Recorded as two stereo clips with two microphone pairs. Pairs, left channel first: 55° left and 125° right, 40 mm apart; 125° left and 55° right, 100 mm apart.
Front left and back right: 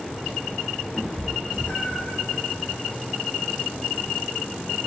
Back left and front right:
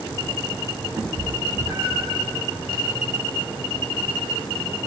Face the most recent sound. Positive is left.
turn(degrees=-5)